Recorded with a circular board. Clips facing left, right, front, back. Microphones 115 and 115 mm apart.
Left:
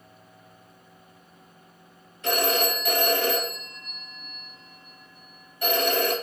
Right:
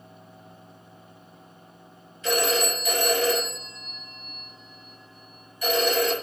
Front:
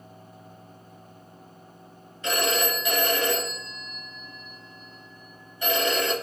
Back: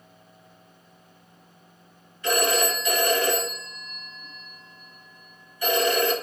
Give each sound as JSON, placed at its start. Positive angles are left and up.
{"t": 2.2, "sound": "a phone ringing", "azimuth_deg": 65, "distance_m": 1.7}